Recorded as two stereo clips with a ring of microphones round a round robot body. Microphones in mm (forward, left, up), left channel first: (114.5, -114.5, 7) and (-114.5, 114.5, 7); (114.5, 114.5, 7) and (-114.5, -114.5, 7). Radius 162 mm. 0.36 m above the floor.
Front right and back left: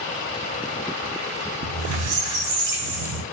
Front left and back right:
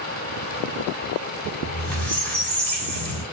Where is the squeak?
130° left, 0.8 m.